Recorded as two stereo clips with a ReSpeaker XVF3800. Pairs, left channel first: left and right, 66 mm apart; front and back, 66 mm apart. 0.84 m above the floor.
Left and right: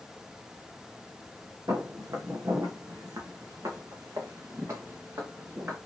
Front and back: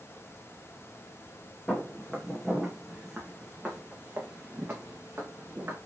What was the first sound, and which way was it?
Footsteps, 70° right.